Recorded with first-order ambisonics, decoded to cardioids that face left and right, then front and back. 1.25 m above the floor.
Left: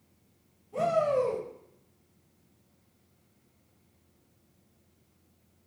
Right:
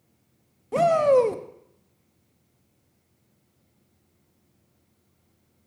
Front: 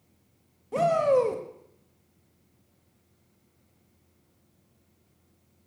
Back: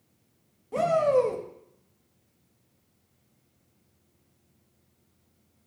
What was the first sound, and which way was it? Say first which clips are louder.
A shout: right 8 dB, even; 80° right.